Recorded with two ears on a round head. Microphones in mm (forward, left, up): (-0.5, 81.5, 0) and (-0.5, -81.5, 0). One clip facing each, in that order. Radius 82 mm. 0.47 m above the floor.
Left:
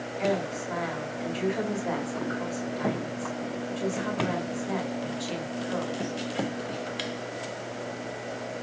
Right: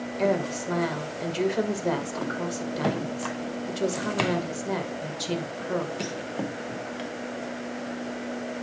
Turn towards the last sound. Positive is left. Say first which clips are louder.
# right 3 dB
turn(degrees=-55)  # may be behind; listen again after turning